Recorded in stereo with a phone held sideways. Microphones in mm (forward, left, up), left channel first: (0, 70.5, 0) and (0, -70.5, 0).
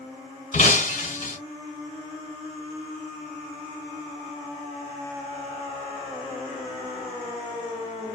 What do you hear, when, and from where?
0.5 s breaking glass: 65° left (ahead or behind), 1.9 m